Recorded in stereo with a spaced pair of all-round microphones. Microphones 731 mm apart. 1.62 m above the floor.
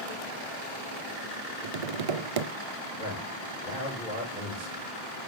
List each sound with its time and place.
1.6 s tapping: 50° right (ahead or behind), 0.7 m
3.0 s a man speaking: 90° right, 6.5 m